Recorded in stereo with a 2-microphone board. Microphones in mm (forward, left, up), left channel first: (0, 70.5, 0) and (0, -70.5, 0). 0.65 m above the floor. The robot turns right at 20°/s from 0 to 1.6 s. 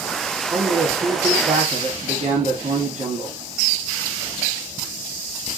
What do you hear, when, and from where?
0.5 s a man speaking: 45° right (ahead or behind), 1.8 m; by 3.4 s 55° right (ahead or behind), 1.8 m